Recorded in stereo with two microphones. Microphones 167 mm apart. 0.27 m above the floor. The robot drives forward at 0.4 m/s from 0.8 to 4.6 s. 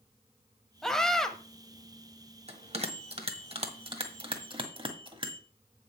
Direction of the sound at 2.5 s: 40° right (ahead or behind).